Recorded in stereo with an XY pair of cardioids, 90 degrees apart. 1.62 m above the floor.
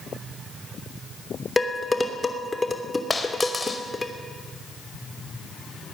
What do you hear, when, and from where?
1.6 s dishes clattering: 20° left, 3 m
3.1 s a dropped coin: 25° left, 3.5 m